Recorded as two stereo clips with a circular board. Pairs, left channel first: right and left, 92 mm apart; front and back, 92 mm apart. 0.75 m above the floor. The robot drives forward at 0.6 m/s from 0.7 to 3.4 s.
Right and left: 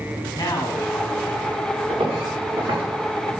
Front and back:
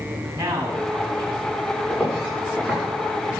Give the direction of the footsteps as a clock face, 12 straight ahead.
9 o'clock.